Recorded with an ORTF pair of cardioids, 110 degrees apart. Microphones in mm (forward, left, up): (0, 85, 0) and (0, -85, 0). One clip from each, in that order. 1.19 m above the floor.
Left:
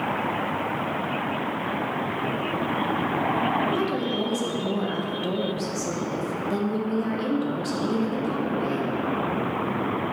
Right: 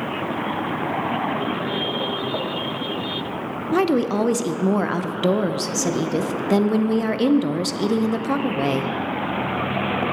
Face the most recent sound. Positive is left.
turn(degrees=-55)